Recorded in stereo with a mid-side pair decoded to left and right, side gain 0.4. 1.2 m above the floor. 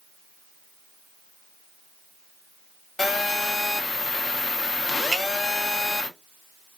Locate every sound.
3.0 s a phone buzzing: 30° left, 0.7 m
5.1 s a finger snap: 45° right, 1.4 m